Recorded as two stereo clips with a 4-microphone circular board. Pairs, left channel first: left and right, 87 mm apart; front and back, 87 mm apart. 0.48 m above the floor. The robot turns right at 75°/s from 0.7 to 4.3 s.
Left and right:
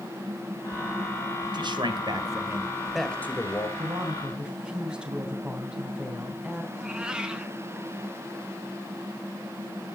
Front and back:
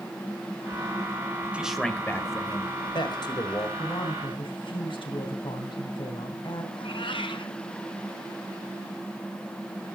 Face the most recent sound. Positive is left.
turn(degrees=-10)